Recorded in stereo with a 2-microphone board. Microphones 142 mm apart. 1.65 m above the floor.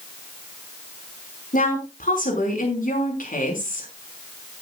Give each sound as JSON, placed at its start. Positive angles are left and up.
{"t": 1.5, "sound": "a woman speaking", "side_deg": 80, "distance_m": 5.0}